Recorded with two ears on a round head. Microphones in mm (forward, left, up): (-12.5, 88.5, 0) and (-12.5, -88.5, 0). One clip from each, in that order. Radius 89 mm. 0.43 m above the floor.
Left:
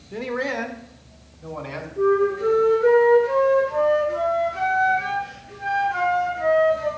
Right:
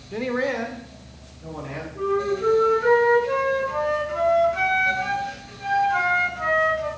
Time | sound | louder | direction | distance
0.1 | a man speaking | right 1 dB | 20° right (ahead or behind) | 0.8 m
1.9 | a flute | left 4 dB | 30° right (ahead or behind) | 5.5 m